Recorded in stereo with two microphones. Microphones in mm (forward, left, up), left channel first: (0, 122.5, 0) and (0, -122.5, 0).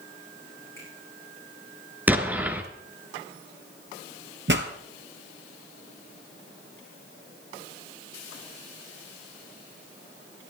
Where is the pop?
50° right (ahead or behind), 1.5 m.